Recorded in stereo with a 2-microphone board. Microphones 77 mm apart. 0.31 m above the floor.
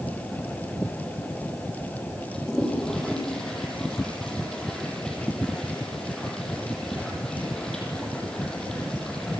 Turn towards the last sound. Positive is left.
turn(degrees=10)  # may be behind; listen again after turning